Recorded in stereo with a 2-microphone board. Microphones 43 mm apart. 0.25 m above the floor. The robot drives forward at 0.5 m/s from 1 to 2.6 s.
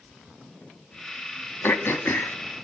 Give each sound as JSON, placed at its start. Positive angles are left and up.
{"t": 1.6, "sound": "throat clearing", "side_deg": 60, "distance_m": 0.8}